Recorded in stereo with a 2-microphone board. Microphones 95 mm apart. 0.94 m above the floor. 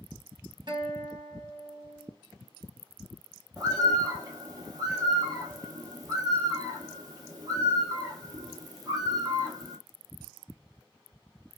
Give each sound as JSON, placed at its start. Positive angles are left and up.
{"t": 0.7, "sound": "a guitar", "side_deg": -50, "distance_m": 1.0}
{"t": 3.6, "sound": "a bird", "side_deg": -40, "distance_m": 0.9}